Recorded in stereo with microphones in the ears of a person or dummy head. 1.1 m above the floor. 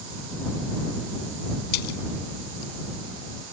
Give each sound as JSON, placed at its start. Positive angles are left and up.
{"t": 1.7, "sound": "a splash", "side_deg": 55}